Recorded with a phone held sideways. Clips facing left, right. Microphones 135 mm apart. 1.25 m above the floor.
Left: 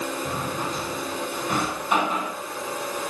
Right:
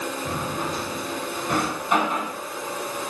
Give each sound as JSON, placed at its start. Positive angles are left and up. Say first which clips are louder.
{"t": 0.2, "sound": "a drawer", "louder": "right 1 dB", "side_deg": 0, "distance_m": 7.5}